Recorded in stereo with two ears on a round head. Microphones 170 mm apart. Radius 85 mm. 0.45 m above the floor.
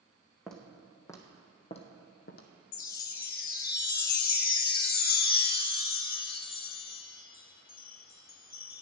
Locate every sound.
0.5 s footsteps: centre (ahead or behind), 1.6 m; by 2.5 s 50° left (ahead or behind), 1.3 m
2.7 s a chime: 45° left (ahead or behind), 0.6 m